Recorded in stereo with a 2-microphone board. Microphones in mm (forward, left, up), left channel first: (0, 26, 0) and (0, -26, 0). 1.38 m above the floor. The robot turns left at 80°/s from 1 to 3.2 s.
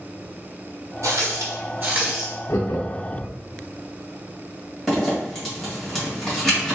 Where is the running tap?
70° right, 1.0 m; by 2.3 s 175° right, 1.0 m.